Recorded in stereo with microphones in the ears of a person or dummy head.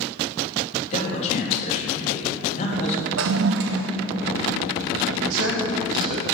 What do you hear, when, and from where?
0.9 s a man speaking: 40° left (ahead or behind), 3 m
3.2 s a toilet flushing: 65° right (ahead or behind), 0.9 m
5.2 s a man speaking: 75° right (ahead or behind), 3.5 m